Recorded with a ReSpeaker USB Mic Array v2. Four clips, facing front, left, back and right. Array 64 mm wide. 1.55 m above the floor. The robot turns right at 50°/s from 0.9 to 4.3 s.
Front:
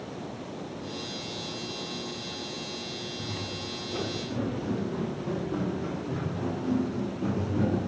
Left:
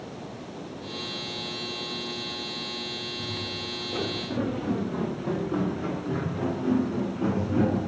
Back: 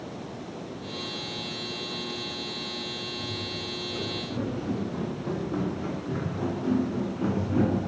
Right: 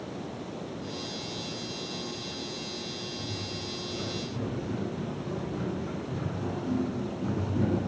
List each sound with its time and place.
3.2 s footsteps: 35° left, 6 m; by 7.9 s 135° left, 5.5 m